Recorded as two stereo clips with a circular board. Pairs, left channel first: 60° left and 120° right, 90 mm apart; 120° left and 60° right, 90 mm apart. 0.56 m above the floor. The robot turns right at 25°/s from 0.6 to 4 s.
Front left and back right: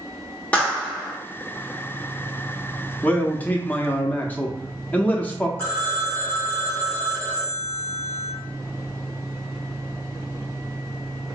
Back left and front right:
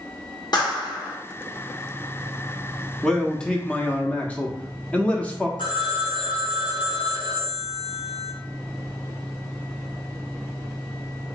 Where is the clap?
130° left, 1.3 m; by 1.2 s 140° left, 1.3 m.